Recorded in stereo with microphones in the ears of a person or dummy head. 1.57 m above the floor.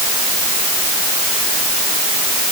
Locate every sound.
Only background noise.